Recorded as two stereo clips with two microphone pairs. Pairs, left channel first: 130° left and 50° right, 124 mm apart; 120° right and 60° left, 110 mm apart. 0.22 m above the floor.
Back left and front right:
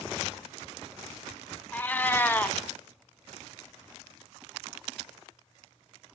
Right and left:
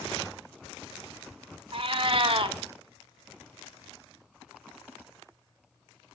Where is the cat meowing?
55° left, 0.5 m.